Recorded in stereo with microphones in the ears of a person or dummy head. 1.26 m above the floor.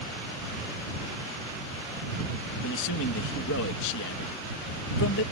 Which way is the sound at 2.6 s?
70° left (ahead or behind).